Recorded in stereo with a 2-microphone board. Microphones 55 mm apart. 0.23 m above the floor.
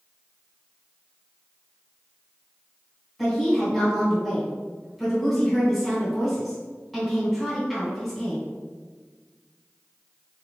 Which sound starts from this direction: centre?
A woman speaking, at 3.2 s.